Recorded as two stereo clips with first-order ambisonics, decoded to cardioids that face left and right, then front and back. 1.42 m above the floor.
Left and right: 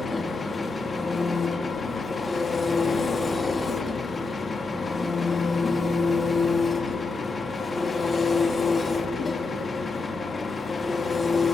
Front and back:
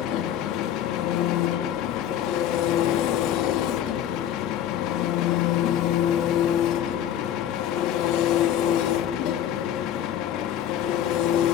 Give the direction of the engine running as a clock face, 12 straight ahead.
12 o'clock.